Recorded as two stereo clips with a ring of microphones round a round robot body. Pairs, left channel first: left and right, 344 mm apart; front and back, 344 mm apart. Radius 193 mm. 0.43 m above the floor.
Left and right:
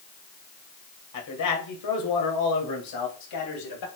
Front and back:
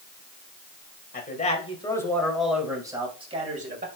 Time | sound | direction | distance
1.1 | a man speaking | 60° left | 2.5 m